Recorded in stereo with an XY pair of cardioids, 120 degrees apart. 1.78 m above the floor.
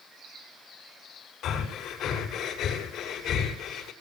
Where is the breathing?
65° left, 6.5 m.